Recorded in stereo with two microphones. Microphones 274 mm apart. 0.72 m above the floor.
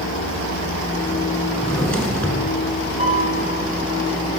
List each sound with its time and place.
1.5 s a drawer: 5° left (ahead or behind), 6 m
3.0 s a piano: 25° right (ahead or behind), 7.5 m